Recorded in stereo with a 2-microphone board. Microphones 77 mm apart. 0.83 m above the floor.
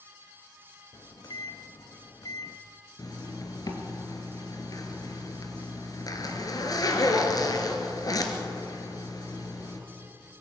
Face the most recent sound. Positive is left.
turn(degrees=55)  # may be behind; listen again after turning